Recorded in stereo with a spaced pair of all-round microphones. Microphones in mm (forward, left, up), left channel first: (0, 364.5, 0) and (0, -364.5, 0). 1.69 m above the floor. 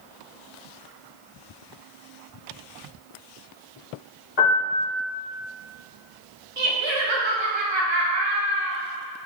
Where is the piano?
60° left (ahead or behind), 1.6 m.